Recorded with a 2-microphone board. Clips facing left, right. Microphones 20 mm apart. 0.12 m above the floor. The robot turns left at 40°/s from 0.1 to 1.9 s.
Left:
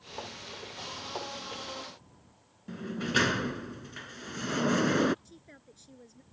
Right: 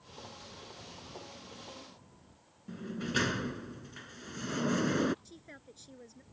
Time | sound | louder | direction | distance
2.7 | a sliding door | left 5 dB | 20° left (ahead or behind) | ?
5.2 | a woman speaking | right 2 dB | 15° right (ahead or behind) | ?